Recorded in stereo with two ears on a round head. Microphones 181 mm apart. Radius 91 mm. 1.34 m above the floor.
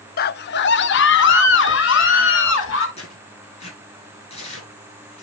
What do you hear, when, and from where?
0.2 s a scream: 45° left (ahead or behind), 0.5 m; by 2.9 s 65° left (ahead or behind), 2.5 m
3.0 s tearing paper: 30° left (ahead or behind), 7.5 m